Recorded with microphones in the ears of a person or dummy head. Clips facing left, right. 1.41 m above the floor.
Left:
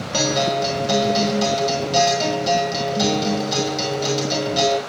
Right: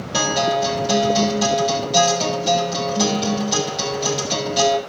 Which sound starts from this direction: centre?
A guitar, at 0.1 s.